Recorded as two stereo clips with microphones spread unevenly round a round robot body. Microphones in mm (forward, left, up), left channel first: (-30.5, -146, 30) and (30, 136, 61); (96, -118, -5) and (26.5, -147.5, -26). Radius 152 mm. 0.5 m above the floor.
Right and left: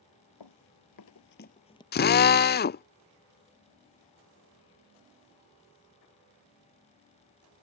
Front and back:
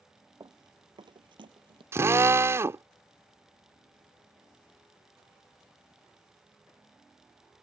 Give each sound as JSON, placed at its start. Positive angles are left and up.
{"t": 0.4, "sound": "running footsteps", "azimuth_deg": -110}
{"t": 1.9, "sound": "a drill", "azimuth_deg": -140}